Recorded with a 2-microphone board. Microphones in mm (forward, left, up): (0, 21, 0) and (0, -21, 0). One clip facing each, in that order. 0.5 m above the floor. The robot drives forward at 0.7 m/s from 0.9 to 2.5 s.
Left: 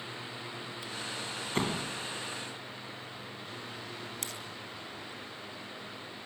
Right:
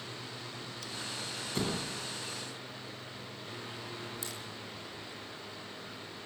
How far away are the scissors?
About 4.5 m.